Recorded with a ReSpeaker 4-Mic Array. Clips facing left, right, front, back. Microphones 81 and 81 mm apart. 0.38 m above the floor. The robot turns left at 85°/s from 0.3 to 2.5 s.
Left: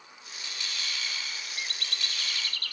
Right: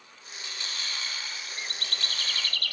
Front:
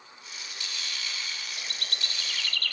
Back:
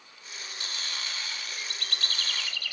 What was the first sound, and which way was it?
A bird, 25° right.